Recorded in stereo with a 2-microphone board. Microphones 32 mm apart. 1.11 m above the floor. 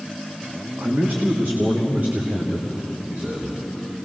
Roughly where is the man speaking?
Right.